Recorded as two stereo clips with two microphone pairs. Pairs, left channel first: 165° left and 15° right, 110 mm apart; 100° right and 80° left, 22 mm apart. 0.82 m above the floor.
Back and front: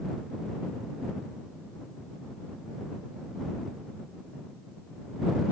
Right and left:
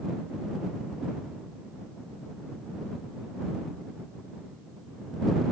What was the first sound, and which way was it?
Only background noise.